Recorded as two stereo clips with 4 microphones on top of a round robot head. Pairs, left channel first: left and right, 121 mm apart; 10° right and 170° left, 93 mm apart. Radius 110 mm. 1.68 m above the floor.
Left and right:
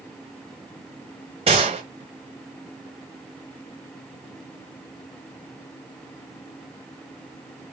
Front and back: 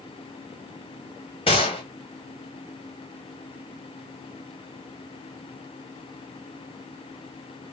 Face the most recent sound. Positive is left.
turn(degrees=-45)